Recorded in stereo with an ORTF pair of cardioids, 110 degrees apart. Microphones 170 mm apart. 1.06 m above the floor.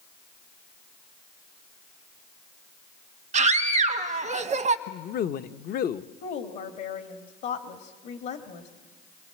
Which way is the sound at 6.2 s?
70° left.